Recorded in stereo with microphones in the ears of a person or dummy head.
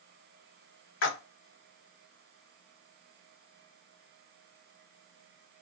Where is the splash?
70° left (ahead or behind), 1.2 m.